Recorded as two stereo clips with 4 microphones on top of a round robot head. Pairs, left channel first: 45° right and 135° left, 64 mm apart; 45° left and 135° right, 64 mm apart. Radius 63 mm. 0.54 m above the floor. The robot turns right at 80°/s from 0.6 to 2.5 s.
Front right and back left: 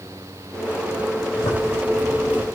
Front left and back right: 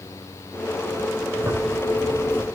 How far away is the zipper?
About 9 m.